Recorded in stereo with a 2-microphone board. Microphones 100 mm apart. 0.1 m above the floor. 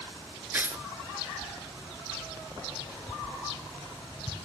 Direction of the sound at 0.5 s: 20° right (ahead or behind).